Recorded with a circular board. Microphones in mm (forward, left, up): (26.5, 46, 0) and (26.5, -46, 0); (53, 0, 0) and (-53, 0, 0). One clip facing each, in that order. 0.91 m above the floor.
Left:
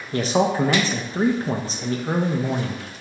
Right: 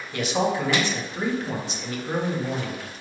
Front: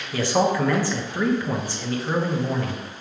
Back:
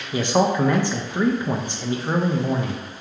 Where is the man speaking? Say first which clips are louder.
Left 4 dB, back 1 dB; 120° left, 0.6 m.